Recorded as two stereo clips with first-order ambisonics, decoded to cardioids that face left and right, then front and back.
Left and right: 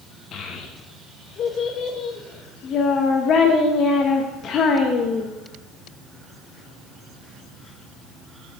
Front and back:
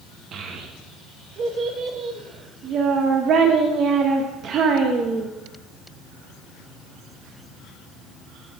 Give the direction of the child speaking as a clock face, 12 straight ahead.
8 o'clock.